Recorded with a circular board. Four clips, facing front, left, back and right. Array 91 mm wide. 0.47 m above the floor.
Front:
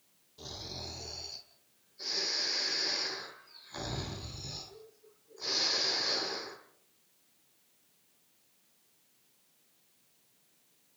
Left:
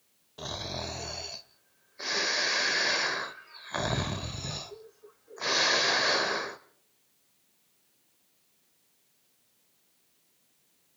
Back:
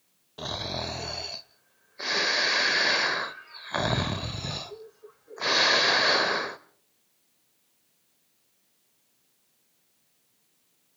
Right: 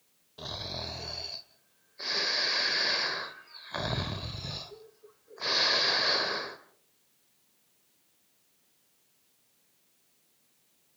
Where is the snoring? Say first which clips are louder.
Left 3 dB, back 12 dB; 165° left, 0.9 m.